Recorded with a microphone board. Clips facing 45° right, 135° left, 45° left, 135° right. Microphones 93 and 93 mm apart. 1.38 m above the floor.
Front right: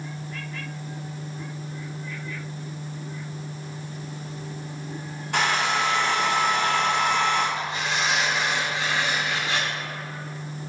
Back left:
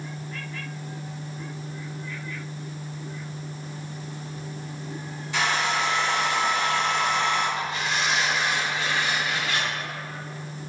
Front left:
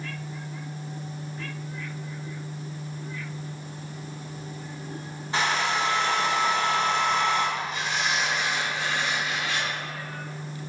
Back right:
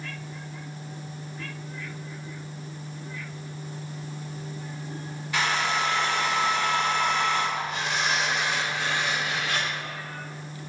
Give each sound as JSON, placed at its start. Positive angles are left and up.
{"t": 5.3, "sound": "a hair dryer", "azimuth_deg": -15, "distance_m": 2.0}
{"t": 7.6, "sound": "tearing paper", "azimuth_deg": -110, "distance_m": 2.5}